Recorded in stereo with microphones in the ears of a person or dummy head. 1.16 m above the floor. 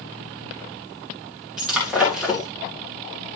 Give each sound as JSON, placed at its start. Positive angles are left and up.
{"t": 1.6, "sound": "breaking glass", "side_deg": -5, "distance_m": 9.5}